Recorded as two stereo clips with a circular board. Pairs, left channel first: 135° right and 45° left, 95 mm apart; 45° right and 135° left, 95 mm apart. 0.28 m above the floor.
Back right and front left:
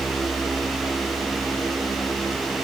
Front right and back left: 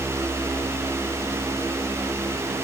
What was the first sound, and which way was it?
Only background noise.